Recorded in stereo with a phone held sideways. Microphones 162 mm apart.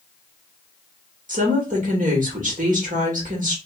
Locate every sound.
1.3 s a woman speaking: 55° right (ahead or behind), 1.7 m